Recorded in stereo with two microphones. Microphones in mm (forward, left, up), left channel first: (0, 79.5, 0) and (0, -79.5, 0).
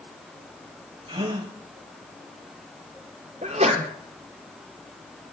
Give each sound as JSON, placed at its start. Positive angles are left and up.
{"t": 1.1, "sound": "a gasp", "side_deg": -35, "distance_m": 3.0}
{"t": 3.4, "sound": "a sneeze", "side_deg": -45, "distance_m": 2.5}